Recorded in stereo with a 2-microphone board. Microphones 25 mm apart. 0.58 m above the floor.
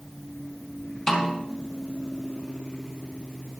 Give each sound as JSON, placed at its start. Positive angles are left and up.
{"t": 1.1, "sound": "a snare drum", "side_deg": 20, "distance_m": 2.0}